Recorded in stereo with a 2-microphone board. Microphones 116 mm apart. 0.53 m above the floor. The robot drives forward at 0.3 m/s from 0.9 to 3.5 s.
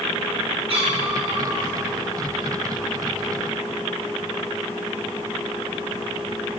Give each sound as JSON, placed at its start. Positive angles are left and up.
{"t": 0.7, "sound": "a cat meowing", "side_deg": -55, "distance_m": 3.0}